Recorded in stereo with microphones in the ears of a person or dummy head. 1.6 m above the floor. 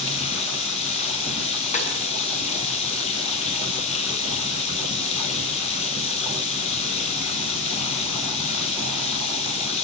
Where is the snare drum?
45° left (ahead or behind), 6 m.